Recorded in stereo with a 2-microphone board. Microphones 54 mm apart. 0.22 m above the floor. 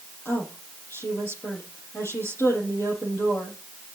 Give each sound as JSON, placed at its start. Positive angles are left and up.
{"t": 0.2, "sound": "a woman speaking", "side_deg": 50, "distance_m": 6.5}